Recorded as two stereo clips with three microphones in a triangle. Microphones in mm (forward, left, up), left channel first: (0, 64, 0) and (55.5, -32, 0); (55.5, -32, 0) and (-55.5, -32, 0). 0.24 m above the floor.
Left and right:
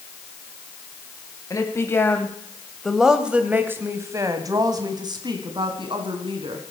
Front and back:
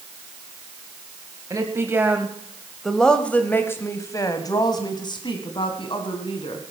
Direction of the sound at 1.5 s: 150° left.